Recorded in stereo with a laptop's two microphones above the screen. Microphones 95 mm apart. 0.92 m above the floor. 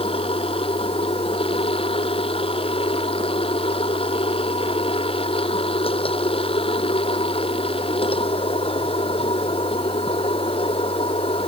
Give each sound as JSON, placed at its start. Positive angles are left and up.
{"t": 0.0, "sound": "a machine running", "side_deg": 80}